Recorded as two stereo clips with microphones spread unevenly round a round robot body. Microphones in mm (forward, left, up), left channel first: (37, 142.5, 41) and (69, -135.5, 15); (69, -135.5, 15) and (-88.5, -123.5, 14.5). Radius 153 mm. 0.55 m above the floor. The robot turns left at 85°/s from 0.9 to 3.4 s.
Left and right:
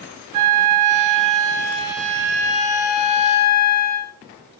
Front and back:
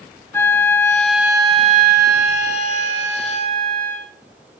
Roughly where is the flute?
Right.